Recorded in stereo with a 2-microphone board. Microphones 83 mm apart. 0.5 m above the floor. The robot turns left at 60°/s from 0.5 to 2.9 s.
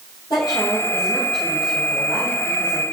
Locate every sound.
0.3 s a woman speaking: 65° left, 3 m; by 2.8 s 75° right, 3 m